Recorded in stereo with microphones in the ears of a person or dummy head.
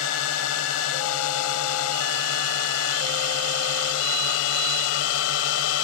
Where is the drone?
75° left (ahead or behind); by 5.8 s 80° left.